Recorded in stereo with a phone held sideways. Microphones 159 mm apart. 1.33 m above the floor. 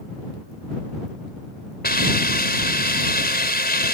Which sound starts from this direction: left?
A hiss, at 1.8 s.